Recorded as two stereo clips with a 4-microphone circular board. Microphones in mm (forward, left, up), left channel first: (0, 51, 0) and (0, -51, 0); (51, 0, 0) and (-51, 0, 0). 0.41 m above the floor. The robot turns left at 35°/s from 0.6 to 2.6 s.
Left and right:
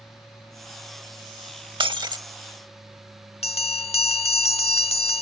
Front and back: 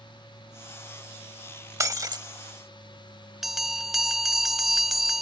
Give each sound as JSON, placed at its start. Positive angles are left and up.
{"t": 0.0, "sound": "an aircraft", "azimuth_deg": 30}
{"t": 1.8, "sound": "breaking glass", "azimuth_deg": -120}
{"t": 3.4, "sound": "a bell", "azimuth_deg": 90}